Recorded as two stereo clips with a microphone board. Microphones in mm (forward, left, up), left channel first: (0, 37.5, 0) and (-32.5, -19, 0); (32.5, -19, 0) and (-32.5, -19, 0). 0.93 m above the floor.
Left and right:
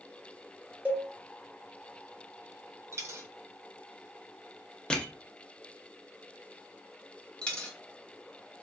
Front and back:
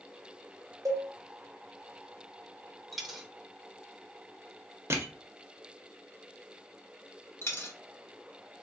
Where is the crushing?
135° left, 0.7 m.